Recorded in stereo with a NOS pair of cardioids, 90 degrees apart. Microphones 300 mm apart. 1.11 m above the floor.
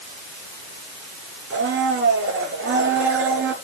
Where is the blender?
45° right, 4 m.